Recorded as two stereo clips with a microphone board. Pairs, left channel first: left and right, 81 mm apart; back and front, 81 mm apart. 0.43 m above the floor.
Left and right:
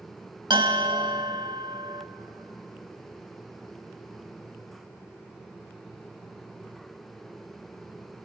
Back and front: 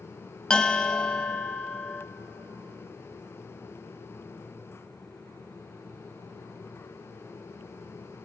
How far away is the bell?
About 0.9 m.